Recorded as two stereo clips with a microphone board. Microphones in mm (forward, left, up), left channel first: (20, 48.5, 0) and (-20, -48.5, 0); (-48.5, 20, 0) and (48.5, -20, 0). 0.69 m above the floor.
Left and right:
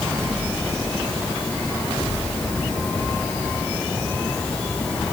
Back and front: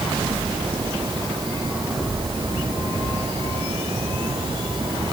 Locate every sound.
Only background noise.